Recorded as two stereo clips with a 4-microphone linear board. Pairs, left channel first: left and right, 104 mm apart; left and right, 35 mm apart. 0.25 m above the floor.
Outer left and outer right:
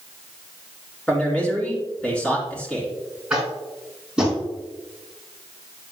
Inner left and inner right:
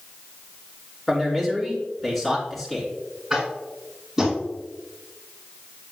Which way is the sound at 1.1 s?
10° left (ahead or behind).